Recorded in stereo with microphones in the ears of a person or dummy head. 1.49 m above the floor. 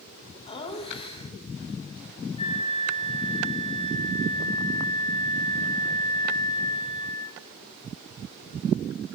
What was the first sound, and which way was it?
Laughter, 30° left (ahead or behind).